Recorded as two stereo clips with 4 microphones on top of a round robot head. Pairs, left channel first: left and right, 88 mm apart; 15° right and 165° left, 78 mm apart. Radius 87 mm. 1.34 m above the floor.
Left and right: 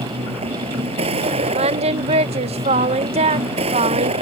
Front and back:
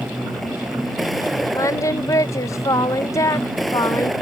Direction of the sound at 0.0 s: 100° right.